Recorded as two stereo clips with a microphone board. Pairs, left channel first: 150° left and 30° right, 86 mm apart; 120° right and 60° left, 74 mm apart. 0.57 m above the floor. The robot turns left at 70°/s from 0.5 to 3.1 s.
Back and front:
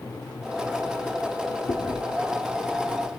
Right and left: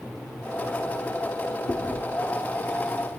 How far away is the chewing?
About 0.8 m.